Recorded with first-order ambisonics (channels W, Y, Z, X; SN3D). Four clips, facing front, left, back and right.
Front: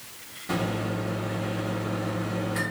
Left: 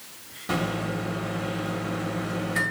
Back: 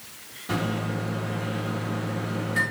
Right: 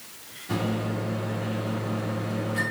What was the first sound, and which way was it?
A microwave, 95° left.